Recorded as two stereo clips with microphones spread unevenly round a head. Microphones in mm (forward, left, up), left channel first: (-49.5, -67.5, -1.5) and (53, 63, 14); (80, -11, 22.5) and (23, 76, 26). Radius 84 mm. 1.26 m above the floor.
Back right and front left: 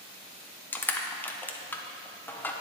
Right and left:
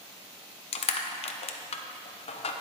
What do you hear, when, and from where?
0.7 s crushing: 50° right, 0.8 m